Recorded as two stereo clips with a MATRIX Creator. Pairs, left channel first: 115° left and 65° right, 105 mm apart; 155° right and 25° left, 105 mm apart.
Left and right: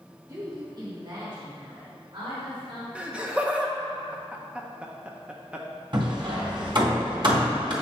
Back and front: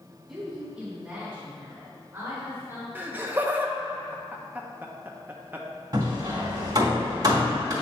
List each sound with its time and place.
0.3 s a woman speaking: 60° right, 1.2 m; by 2.9 s 40° right, 2.5 m
3.0 s laughter: 10° right, 0.7 m
5.9 s hammering: 30° right, 2.5 m